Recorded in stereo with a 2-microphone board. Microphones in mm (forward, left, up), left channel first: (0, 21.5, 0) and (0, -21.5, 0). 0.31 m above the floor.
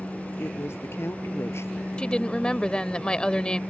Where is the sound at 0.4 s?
75° left (ahead or behind).